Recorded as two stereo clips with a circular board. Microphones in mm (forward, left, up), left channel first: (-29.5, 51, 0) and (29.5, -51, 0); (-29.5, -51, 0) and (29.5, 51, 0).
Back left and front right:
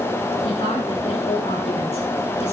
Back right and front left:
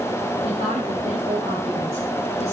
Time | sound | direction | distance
0.4 | a woman speaking | 85° left | 8.5 m